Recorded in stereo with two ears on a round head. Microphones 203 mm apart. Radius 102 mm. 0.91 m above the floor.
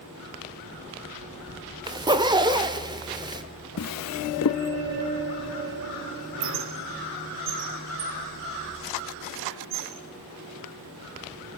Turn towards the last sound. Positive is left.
turn(degrees=-65)  # may be behind; listen again after turning